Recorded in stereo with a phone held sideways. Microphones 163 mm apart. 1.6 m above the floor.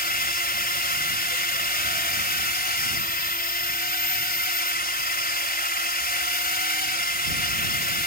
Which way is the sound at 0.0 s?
75° left (ahead or behind).